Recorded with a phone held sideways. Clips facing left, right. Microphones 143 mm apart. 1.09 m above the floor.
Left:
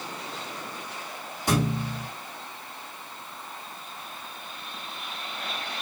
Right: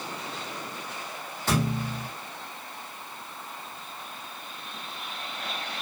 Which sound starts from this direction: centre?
A thud, at 1.5 s.